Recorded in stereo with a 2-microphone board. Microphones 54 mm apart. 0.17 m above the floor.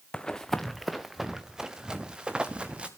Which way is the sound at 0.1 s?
15° left (ahead or behind).